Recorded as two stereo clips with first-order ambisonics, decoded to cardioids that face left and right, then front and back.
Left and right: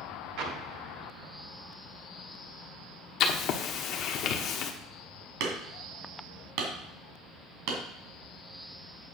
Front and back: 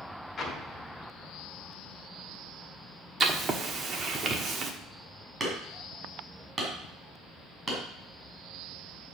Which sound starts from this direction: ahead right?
An explosion, at 0.4 s.